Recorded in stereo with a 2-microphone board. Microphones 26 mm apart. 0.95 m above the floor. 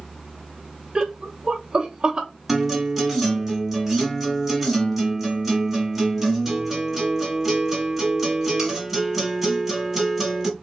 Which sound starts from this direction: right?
Laughter, at 0.9 s.